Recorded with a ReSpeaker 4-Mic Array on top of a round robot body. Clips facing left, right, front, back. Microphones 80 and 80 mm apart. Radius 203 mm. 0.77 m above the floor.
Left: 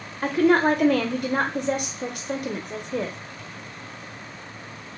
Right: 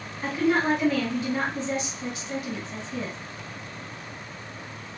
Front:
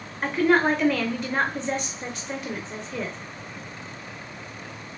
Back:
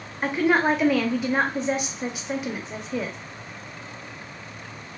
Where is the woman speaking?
95° left, 0.6 m.